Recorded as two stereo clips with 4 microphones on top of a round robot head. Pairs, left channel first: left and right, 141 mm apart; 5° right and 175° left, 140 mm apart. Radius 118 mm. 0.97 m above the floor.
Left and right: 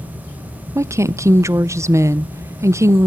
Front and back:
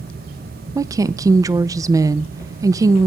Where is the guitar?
No guitar in this recording.